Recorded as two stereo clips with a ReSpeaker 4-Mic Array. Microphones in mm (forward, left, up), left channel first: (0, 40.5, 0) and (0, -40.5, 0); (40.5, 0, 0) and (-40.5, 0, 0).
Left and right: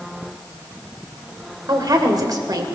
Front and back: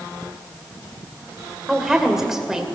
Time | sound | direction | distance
1.7 | a woman speaking | 100° right | 2 m